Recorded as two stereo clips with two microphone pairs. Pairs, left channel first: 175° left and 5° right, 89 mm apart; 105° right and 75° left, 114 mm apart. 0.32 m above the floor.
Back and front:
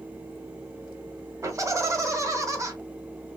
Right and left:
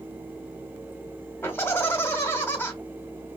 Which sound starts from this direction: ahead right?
Laughter, at 1.4 s.